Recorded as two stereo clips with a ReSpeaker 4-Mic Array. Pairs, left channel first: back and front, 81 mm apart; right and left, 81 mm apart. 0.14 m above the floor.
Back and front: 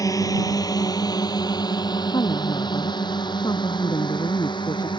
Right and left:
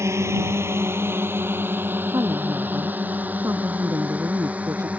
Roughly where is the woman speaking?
Behind left.